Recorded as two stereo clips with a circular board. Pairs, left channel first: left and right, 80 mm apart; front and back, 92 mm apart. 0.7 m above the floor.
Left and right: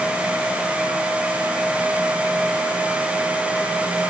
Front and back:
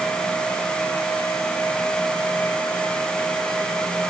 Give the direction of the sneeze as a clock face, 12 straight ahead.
No sneeze in this recording.